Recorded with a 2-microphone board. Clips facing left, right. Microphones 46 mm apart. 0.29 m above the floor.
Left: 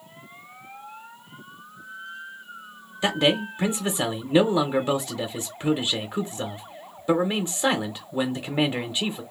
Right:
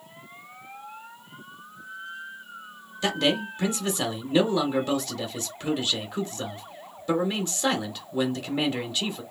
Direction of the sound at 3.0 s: 20° left (ahead or behind).